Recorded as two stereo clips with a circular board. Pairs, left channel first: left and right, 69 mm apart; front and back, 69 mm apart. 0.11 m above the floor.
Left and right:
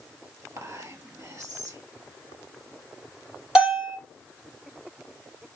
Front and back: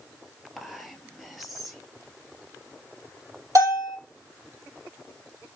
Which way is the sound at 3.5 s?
170° right.